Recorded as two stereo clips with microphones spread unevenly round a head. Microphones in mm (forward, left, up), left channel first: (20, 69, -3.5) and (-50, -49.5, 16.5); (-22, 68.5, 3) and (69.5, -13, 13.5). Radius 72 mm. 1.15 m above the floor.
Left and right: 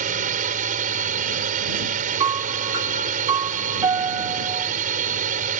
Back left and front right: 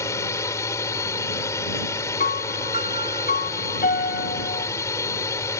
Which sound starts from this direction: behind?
A piano, at 2.2 s.